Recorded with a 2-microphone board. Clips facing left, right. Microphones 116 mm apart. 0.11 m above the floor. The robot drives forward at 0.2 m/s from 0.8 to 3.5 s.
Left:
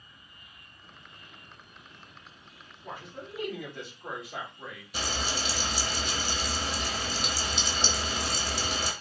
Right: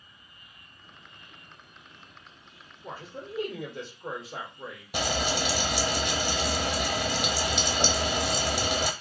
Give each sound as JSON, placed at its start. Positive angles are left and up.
{"t": 2.8, "sound": "a man speaking", "side_deg": -30, "distance_m": 1.7}
{"t": 4.9, "sound": "frying", "side_deg": -70, "distance_m": 0.5}